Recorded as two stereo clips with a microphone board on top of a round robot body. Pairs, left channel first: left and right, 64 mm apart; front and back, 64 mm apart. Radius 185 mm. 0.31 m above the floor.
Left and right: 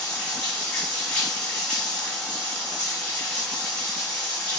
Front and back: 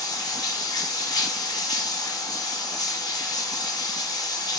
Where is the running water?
20° left, 3 m.